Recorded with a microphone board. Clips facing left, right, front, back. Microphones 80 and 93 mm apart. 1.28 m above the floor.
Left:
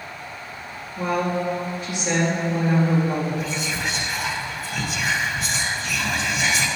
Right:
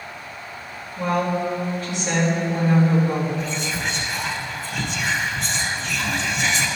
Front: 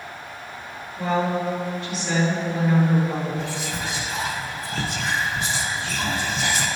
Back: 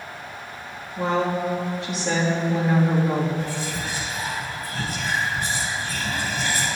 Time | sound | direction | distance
1.0 | a woman speaking | 165° left | 2.5 m
3.4 | whispering | 5° left | 1.1 m